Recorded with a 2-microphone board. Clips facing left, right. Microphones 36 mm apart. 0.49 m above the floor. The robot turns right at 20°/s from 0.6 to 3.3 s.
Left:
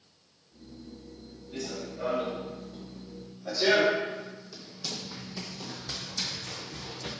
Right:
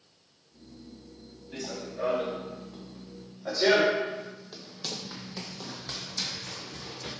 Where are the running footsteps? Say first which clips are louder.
Even; 70° right (ahead or behind), 1.9 m; by 7.1 s 10° right (ahead or behind), 1.5 m.